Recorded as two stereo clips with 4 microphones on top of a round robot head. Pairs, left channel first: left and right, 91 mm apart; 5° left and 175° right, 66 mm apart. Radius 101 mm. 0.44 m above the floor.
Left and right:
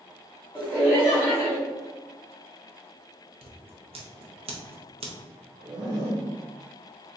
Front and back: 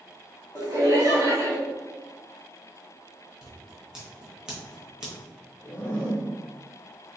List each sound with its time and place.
0.6 s laughter: 170° right, 1.3 m
3.4 s scissors: 95° right, 0.9 m
5.6 s a zipper: 50° right, 1.5 m